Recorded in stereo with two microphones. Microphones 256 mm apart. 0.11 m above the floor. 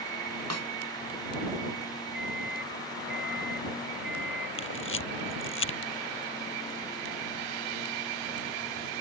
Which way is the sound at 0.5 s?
85° right.